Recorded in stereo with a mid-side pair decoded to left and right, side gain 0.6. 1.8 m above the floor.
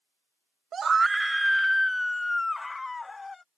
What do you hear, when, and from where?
0.7 s a scream: 40° right; by 3.4 s 20° left